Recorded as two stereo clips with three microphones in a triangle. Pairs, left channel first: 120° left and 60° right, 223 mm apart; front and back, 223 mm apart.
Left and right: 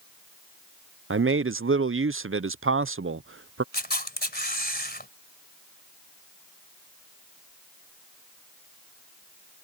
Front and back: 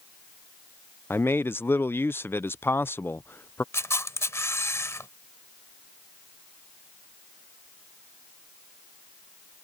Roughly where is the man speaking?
Right.